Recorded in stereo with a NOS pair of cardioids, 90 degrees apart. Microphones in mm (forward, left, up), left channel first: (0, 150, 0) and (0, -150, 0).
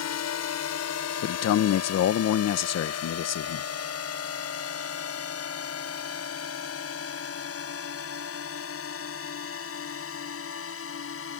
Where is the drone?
60° left; by 11.4 s 50° left.